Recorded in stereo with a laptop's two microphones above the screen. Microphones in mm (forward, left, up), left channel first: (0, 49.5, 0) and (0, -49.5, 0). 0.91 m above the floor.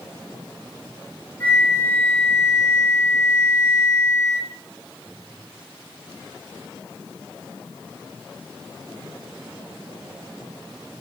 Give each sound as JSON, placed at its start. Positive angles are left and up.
{"t": 1.4, "sound": "a flute", "side_deg": 15, "distance_m": 4.0}